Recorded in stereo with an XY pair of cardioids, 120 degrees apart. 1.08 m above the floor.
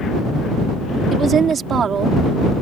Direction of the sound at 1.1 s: 45° right.